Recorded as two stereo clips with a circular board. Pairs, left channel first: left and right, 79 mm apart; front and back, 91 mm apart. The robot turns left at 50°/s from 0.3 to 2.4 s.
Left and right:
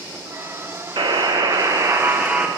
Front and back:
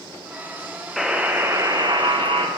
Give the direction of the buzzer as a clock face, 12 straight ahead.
3 o'clock.